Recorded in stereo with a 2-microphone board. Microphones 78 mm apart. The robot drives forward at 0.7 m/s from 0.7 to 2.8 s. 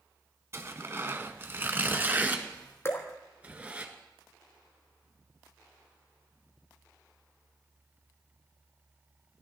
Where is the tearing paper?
35° right (ahead or behind), 1.4 m; by 3.9 s 20° right (ahead or behind), 2 m.